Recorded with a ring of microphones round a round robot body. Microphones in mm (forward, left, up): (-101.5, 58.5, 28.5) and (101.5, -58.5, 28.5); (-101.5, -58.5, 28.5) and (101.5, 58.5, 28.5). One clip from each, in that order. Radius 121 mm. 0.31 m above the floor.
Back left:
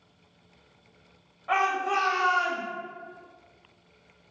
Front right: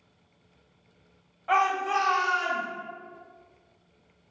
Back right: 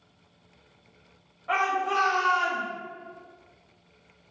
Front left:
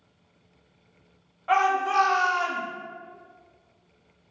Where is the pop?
No pop in this recording.